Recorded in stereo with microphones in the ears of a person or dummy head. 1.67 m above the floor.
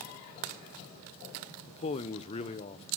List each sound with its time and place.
1.7 s a man speaking: 30° left (ahead or behind), 1.0 m